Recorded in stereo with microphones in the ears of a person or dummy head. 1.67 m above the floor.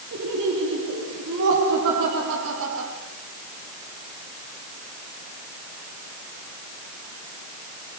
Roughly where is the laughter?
Right.